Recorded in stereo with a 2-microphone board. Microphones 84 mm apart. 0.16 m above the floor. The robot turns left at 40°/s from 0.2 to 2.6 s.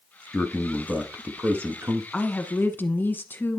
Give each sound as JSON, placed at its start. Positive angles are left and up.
{"t": 0.3, "sound": "a man speaking", "azimuth_deg": 5, "distance_m": 1.2}
{"t": 2.1, "sound": "a woman speaking", "side_deg": 15, "distance_m": 1.2}